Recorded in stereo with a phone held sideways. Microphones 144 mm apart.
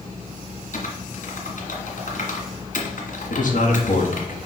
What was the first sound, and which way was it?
Typing on a keyboard, 65° left (ahead or behind).